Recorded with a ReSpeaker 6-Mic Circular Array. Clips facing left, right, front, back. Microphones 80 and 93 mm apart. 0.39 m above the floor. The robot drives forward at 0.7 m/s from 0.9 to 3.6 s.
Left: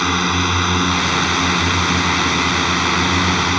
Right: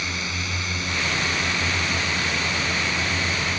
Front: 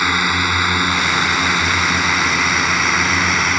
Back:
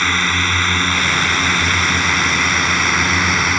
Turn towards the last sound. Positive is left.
turn(degrees=90)